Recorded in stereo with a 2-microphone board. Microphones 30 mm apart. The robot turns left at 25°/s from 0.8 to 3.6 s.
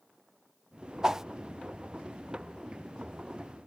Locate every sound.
1.0 s a whoosh: 20° right (ahead or behind); by 1.2 s 15° right (ahead or behind)